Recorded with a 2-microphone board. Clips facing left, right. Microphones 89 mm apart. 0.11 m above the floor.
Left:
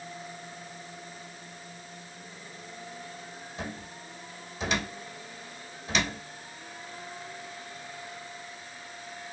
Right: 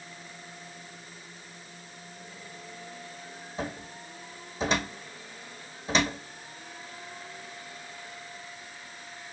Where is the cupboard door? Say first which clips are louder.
Right 4 dB; 35° right (ahead or behind), 2.5 m.